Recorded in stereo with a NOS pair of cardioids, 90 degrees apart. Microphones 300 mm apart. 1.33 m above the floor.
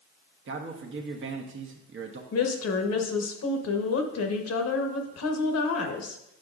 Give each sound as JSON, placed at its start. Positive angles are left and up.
{"t": 0.5, "sound": "a man speaking", "azimuth_deg": -40, "distance_m": 1.0}
{"t": 2.3, "sound": "a woman speaking", "azimuth_deg": 55, "distance_m": 1.1}